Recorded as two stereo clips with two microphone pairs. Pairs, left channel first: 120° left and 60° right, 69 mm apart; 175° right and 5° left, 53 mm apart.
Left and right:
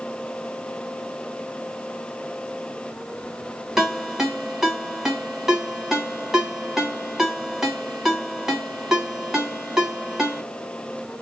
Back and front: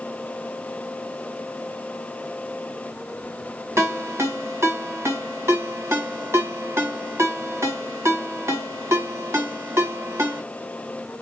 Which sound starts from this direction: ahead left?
A ringtone, at 3.8 s.